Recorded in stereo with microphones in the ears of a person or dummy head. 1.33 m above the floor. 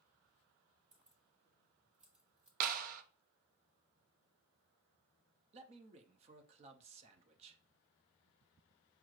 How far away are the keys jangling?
About 1.1 m.